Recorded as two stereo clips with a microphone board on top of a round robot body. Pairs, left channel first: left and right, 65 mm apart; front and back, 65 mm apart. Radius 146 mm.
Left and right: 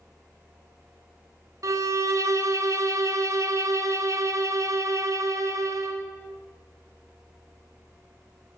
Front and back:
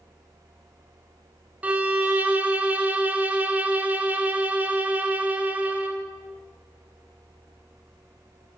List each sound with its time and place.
1.6 s a violin: 115° right, 1.4 m